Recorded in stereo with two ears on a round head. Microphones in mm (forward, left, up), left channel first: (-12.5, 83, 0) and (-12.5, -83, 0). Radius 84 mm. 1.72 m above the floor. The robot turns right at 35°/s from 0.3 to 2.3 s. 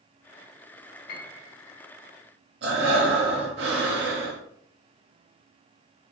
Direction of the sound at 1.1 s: 50° left (ahead or behind).